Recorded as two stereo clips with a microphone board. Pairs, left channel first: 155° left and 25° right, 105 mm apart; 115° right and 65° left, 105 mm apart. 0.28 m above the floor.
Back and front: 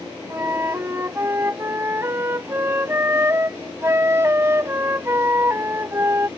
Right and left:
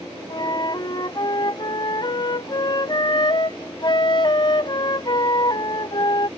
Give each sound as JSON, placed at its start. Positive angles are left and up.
{"t": 0.3, "sound": "a flute", "azimuth_deg": -80}